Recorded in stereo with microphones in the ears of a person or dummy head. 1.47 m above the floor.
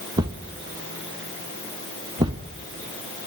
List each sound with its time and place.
0.2 s a thud: 20° right (ahead or behind), 1.1 m